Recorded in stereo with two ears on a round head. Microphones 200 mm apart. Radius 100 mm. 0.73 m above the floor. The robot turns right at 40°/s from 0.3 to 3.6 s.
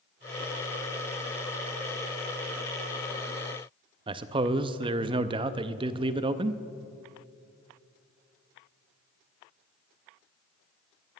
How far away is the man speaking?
About 0.5 m.